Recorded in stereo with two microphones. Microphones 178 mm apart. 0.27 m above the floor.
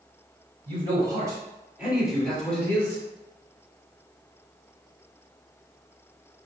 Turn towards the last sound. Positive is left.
turn(degrees=15)  # may be behind; listen again after turning